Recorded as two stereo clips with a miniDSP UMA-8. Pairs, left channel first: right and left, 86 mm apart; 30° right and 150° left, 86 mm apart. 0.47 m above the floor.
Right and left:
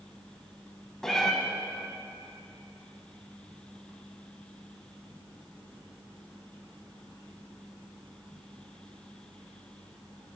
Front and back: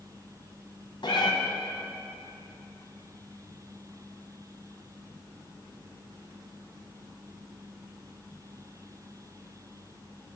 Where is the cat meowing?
5° right, 1.4 m.